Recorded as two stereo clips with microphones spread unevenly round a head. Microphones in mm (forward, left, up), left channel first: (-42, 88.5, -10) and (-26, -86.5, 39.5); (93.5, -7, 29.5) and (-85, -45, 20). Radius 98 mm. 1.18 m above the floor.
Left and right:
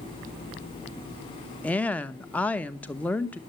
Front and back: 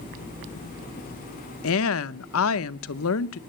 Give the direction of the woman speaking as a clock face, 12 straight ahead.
12 o'clock.